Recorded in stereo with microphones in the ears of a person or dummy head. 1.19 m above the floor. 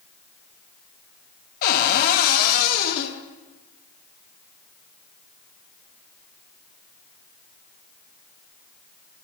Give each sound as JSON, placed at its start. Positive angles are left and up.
{"t": 1.6, "sound": "a cupboard door", "side_deg": 55, "distance_m": 1.0}